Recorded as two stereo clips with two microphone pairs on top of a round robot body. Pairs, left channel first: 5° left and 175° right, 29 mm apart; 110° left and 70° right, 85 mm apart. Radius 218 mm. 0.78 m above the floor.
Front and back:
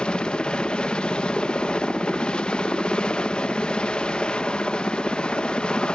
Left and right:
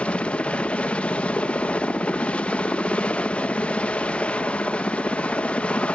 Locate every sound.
0.0 s a helicopter: 45° left